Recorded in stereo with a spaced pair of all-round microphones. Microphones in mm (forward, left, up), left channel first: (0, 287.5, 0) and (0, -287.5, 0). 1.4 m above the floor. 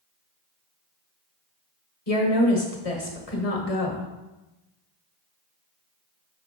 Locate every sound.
2.1 s a woman speaking: 75° left (ahead or behind), 1.4 m